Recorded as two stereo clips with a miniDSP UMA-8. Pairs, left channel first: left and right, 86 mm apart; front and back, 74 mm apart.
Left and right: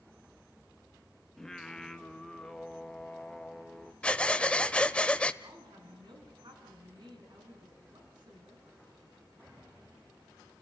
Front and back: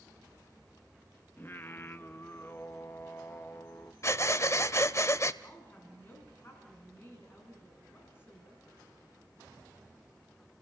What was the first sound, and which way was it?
Singing, 10° left.